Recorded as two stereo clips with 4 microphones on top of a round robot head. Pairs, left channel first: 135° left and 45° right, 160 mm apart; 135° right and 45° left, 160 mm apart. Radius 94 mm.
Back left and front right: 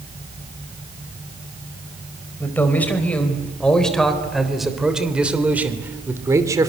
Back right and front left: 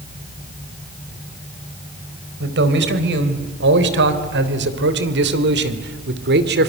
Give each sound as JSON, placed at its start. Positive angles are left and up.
{"t": 2.4, "sound": "a man speaking", "azimuth_deg": 55, "distance_m": 4.0}